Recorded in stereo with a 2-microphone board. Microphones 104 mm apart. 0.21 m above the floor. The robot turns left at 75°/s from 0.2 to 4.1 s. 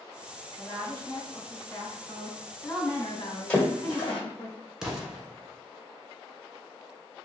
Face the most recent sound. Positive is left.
turn(degrees=-5)  # may be behind; listen again after turning